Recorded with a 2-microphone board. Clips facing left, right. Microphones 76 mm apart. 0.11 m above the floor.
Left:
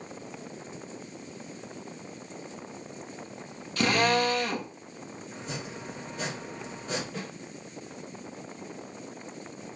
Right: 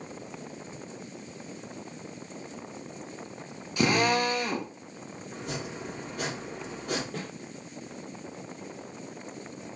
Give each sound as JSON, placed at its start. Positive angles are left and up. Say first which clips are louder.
{"t": 3.8, "sound": "a drill", "louder": "even", "side_deg": -20, "distance_m": 1.1}
{"t": 5.3, "sound": "chopping", "louder": "right 3 dB", "side_deg": -60, "distance_m": 3.5}
{"t": 7.1, "sound": "a snare drum", "louder": "right 1 dB", "side_deg": -55, "distance_m": 2.5}